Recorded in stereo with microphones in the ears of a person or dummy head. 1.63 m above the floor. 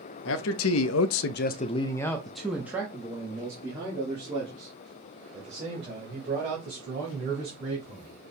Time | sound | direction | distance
0.2 | a man speaking | 75° left (ahead or behind) | 0.8 m